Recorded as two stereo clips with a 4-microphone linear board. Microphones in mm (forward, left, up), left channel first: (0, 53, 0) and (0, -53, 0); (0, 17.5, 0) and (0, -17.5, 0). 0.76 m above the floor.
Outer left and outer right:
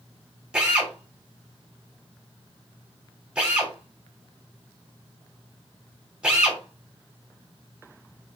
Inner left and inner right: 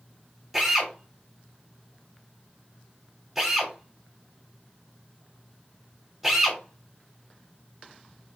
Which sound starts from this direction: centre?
A drill, at 0.5 s.